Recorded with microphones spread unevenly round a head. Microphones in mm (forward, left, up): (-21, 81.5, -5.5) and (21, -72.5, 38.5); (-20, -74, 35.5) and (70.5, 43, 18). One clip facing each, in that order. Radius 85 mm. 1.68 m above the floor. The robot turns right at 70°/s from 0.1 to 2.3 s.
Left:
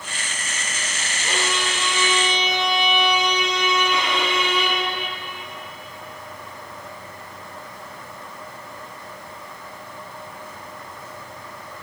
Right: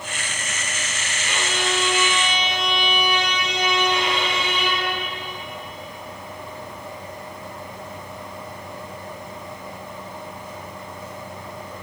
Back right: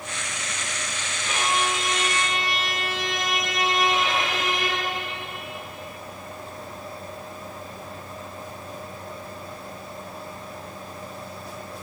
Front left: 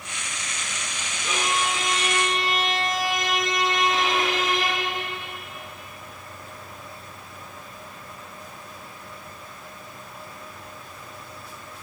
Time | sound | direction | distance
1.2 | a violin | 40° left | 3.5 m